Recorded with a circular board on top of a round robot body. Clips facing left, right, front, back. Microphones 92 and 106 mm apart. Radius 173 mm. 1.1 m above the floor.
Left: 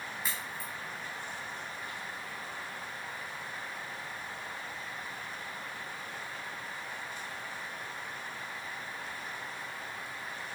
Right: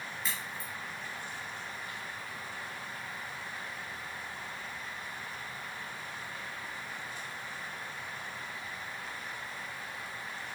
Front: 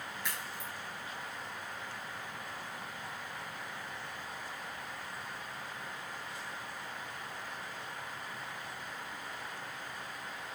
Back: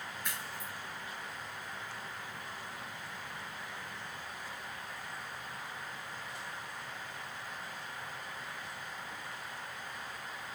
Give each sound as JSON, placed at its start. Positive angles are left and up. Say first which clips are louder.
{"t": 0.2, "sound": "a crack", "louder": "right 1 dB, front 1 dB", "azimuth_deg": 5, "distance_m": 2.0}